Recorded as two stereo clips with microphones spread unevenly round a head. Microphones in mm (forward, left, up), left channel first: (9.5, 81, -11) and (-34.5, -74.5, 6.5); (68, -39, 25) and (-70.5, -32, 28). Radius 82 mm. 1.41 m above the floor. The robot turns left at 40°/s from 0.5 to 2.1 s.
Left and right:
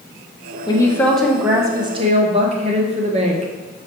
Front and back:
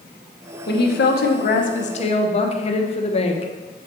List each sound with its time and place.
0.7 s a woman speaking: 5° left, 1.0 m; by 3.5 s 50° right, 1.0 m